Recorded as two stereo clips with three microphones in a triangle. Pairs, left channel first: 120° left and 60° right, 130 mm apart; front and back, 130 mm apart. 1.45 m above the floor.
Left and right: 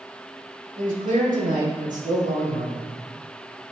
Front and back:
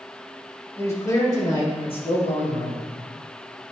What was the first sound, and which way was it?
A man speaking, 70° right.